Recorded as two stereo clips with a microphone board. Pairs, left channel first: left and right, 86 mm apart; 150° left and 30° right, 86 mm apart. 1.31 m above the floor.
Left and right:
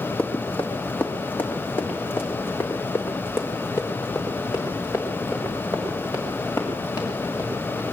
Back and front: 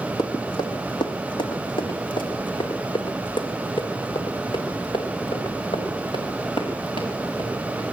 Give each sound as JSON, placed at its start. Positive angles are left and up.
{"t": 0.2, "sound": "running footsteps", "azimuth_deg": 160, "distance_m": 3.0}